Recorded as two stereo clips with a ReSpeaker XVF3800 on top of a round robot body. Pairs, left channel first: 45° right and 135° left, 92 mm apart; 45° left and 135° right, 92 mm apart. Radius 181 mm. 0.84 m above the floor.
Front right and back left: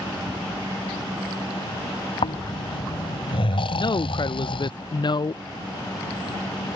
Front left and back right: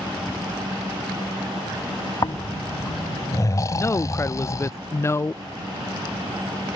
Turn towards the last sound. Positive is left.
turn(degrees=-15)